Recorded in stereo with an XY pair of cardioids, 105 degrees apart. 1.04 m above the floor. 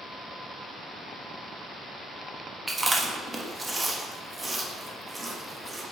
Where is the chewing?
25° right, 1.2 m.